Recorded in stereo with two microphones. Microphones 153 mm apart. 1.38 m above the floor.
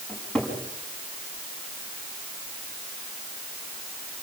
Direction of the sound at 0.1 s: 5° left (ahead or behind).